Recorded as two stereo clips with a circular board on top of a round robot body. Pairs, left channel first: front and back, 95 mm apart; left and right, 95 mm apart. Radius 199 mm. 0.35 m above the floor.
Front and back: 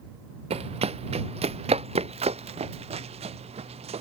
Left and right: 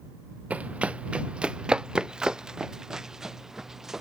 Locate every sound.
0.5 s running footsteps: 170° right; by 4.0 s 175° right